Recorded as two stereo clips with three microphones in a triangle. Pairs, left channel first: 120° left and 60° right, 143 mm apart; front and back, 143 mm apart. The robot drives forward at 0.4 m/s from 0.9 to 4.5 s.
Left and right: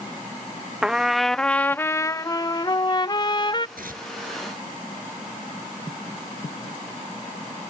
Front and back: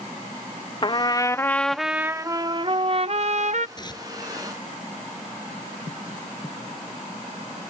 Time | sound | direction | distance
0.8 | a trumpet | 20° left | ?
3.8 | tearing paper | 60° right | ?